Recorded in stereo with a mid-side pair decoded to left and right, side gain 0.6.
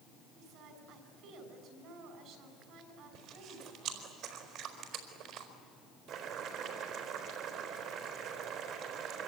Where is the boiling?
65° right, 4 m.